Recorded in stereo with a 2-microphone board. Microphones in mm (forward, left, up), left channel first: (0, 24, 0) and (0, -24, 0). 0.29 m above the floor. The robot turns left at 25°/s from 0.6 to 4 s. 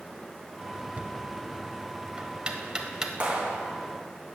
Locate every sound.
1.0 s knocking: 30° right (ahead or behind), 0.9 m; by 3.1 s 15° right (ahead or behind), 0.9 m
3.2 s a clap: 30° right (ahead or behind), 1.8 m; by 3.6 s 20° right (ahead or behind), 1.8 m